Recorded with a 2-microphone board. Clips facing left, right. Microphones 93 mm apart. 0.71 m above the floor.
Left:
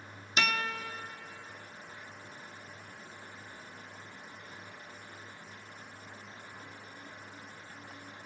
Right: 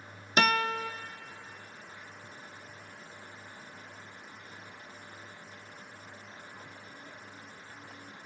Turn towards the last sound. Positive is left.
turn(degrees=-50)  # may be behind; listen again after turning